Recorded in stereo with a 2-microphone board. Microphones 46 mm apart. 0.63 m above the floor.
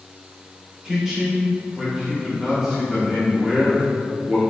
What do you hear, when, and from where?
0.8 s a man speaking: 10° right (ahead or behind), 1.3 m